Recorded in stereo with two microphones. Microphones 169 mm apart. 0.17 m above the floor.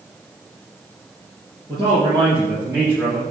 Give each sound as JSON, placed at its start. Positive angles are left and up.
{"t": 1.7, "sound": "a man speaking", "side_deg": -30, "distance_m": 4.0}